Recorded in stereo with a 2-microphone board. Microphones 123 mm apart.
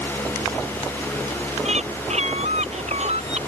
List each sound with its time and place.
1.6 s a bird: 65° right (ahead or behind)